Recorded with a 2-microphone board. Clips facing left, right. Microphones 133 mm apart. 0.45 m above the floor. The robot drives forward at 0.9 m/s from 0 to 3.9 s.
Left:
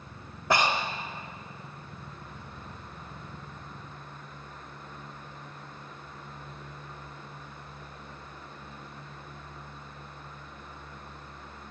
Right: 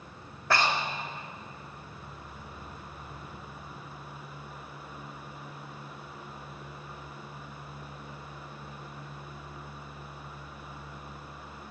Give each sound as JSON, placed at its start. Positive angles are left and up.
{"t": 0.5, "sound": "breathing", "side_deg": 20, "distance_m": 0.6}